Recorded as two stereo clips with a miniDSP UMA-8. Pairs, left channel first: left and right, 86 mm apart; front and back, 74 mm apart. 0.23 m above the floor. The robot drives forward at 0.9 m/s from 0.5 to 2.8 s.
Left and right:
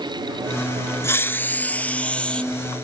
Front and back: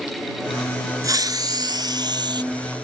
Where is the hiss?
150° left; by 2.4 s 165° left.